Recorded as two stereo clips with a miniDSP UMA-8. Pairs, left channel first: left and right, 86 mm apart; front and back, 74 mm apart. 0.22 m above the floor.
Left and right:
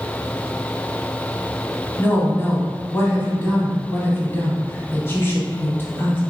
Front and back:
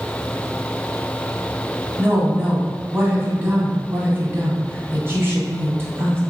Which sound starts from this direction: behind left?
A woman speaking, at 2.0 s.